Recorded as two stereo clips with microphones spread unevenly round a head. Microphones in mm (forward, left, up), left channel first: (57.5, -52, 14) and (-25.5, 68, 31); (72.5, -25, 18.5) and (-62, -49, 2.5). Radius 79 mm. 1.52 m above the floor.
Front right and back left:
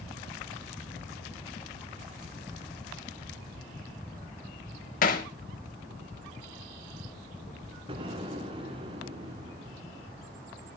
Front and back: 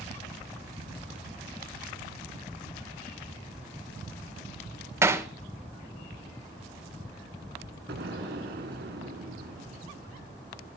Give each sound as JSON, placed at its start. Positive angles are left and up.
{"t": 5.0, "sound": "hammering", "azimuth_deg": -95, "distance_m": 1.6}
{"t": 7.9, "sound": "an explosion", "azimuth_deg": 175, "distance_m": 3.0}